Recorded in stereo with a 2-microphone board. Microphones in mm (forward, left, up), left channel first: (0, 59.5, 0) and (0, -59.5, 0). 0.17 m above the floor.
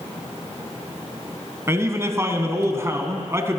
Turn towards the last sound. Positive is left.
turn(degrees=-25)  # may be behind; listen again after turning